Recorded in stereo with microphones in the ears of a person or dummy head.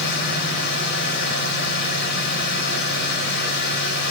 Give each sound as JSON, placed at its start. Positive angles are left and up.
{"t": 0.0, "sound": "a machine running", "side_deg": 60, "distance_m": 3.5}